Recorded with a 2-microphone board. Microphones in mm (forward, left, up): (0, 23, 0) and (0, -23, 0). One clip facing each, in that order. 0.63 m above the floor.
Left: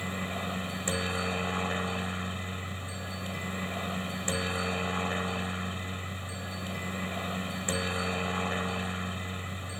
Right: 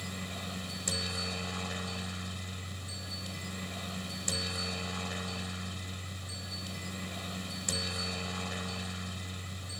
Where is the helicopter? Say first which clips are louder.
Left 7 dB; 30° left (ahead or behind).